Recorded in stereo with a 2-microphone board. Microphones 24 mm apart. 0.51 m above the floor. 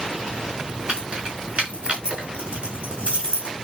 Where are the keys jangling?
80° right, 5 m.